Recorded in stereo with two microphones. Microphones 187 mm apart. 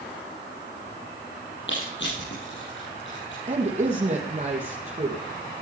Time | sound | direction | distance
1.7 | crushing | 80° left | 8.5 m
3.5 | a woman speaking | 40° right (ahead or behind) | 2.5 m